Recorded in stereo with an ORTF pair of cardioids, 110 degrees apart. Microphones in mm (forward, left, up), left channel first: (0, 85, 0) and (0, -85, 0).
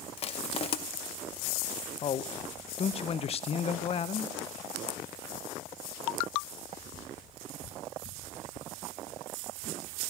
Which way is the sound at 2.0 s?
35° left.